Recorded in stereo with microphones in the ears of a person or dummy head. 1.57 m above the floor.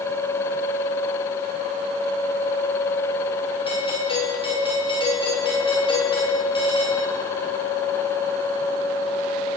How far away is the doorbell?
About 7 m.